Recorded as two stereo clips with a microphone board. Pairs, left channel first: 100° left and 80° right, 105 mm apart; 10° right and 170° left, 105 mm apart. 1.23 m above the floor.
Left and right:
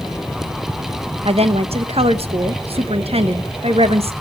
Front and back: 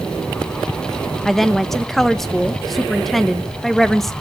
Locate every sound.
1.2 s a woman speaking: 100° right, 1.1 m